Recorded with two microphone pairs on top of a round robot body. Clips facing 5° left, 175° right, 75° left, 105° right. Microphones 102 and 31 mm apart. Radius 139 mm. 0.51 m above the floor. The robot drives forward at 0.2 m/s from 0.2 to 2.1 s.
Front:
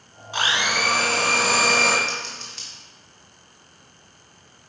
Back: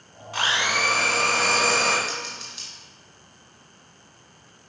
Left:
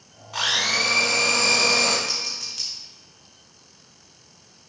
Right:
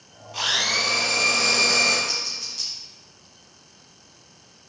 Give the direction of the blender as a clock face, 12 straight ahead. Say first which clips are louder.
Front 1 dB, left 1 dB; 10 o'clock.